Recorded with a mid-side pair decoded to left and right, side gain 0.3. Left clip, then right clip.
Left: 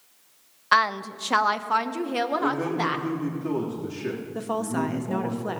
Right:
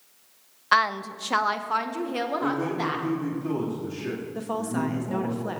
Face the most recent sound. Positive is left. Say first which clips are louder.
# left 2 dB
turn(degrees=30)